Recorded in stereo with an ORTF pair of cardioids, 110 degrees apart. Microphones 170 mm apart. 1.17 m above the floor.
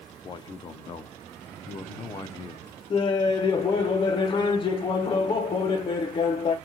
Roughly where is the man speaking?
Ahead left.